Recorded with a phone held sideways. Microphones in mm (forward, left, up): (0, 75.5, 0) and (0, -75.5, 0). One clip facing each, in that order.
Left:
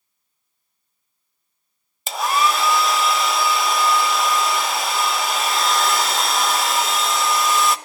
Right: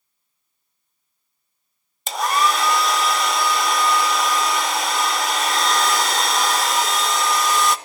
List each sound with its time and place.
2.1 s a hair dryer: centre (ahead or behind), 0.7 m